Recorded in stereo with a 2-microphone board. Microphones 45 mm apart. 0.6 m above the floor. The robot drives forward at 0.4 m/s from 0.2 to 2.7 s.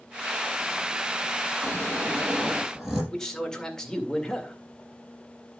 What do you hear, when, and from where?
1.6 s snoring: 5° right (ahead or behind), 5 m
3.1 s a man speaking: 15° left (ahead or behind), 1.9 m